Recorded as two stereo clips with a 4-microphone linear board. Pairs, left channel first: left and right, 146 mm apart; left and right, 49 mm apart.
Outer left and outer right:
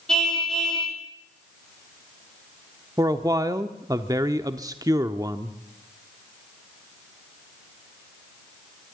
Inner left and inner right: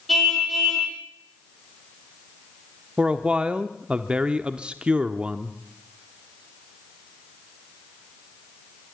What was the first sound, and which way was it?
A car horn, 5° left (ahead or behind).